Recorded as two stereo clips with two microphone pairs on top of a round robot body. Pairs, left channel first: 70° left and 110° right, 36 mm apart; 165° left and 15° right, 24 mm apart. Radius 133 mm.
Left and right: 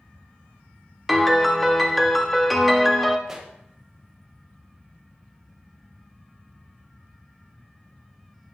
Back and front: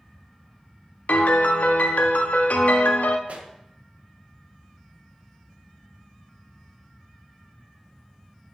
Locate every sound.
1.1 s a piano: 160° left, 0.6 m
3.3 s a pop: 30° right, 0.9 m